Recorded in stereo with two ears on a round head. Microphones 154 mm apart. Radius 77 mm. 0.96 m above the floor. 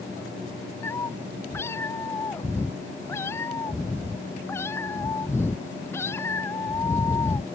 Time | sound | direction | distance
0.8 | a cat meowing | 15° left (ahead or behind) | ?